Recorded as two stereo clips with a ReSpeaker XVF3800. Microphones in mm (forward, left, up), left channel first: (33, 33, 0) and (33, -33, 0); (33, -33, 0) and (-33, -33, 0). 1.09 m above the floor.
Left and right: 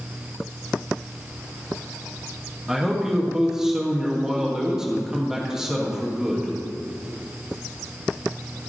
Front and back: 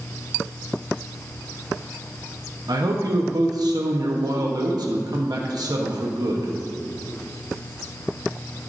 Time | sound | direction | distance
2.7 | a man speaking | 170° right | 1.1 m